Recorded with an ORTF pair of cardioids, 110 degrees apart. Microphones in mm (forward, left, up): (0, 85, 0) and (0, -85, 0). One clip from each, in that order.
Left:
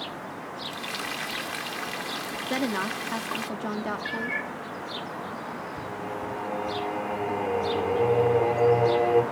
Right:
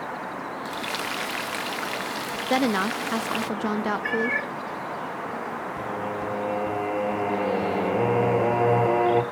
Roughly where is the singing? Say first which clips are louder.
Right 5 dB; ahead right.